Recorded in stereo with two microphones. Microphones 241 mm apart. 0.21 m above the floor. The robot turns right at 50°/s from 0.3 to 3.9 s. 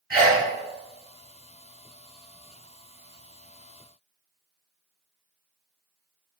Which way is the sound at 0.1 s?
15° right (ahead or behind).